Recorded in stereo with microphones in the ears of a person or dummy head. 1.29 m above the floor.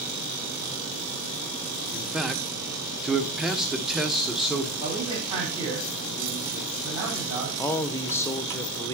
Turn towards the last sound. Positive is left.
turn(degrees=15)  # may be behind; listen again after turning